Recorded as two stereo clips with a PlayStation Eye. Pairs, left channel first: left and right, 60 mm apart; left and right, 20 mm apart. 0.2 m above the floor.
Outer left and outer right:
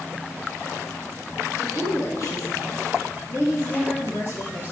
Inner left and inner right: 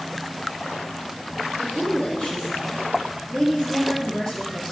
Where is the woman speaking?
65° left (ahead or behind), 4 m; by 4.7 s 35° left (ahead or behind), 4.5 m.